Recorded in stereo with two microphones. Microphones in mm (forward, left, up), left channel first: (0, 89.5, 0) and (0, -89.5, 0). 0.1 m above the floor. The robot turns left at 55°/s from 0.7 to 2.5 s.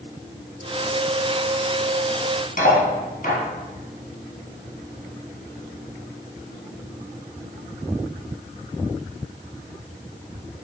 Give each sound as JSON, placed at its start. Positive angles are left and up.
{"t": 2.6, "sound": "cutlery clinking", "side_deg": 50, "distance_m": 1.4}